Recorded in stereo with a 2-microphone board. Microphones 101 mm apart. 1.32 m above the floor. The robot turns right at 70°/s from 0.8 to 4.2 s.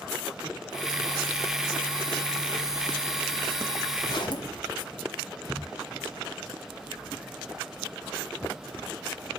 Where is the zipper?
40° left (ahead or behind), 1.5 m; by 4.6 s 55° left (ahead or behind), 1.5 m.